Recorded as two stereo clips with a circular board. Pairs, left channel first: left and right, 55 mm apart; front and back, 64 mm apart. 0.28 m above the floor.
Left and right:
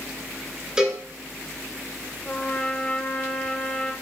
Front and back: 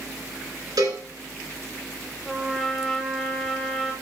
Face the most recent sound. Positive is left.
turn(degrees=85)